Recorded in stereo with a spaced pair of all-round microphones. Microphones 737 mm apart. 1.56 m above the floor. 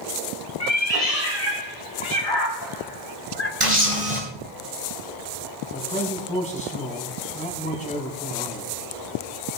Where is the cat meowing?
55° left (ahead or behind), 3 m; by 3.5 s 20° left (ahead or behind), 2 m.